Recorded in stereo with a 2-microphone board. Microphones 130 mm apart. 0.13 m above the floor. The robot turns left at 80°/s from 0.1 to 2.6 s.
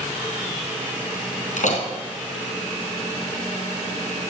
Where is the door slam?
70° left (ahead or behind), 3 m; by 1.9 s 55° left (ahead or behind), 3 m.